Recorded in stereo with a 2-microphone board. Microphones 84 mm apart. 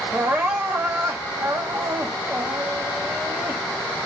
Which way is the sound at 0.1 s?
20° right (ahead or behind).